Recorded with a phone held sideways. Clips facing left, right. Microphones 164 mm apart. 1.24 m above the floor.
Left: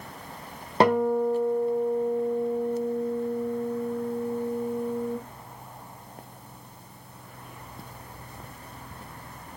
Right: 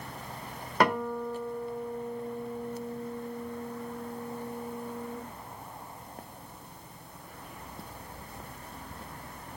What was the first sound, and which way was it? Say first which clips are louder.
A guitar: left 7 dB; 30° left (ahead or behind).